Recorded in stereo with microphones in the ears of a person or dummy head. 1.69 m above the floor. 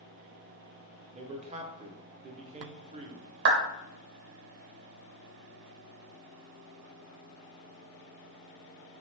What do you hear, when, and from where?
1.1 s a man speaking: 35° right (ahead or behind), 0.5 m
3.5 s a clap: 55° right (ahead or behind), 0.6 m